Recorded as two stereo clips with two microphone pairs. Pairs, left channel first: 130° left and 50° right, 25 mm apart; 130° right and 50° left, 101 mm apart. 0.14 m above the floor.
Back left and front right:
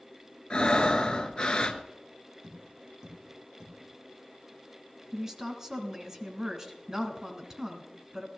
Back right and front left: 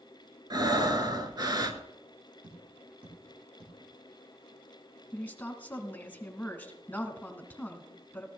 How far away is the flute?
No flute in this recording.